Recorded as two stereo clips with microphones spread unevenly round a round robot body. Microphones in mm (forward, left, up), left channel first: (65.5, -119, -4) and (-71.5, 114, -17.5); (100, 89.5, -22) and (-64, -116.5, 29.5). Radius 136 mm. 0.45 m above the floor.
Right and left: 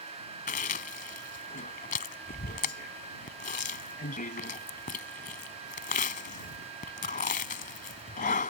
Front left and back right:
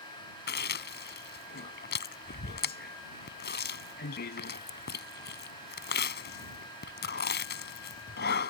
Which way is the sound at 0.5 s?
Straight ahead.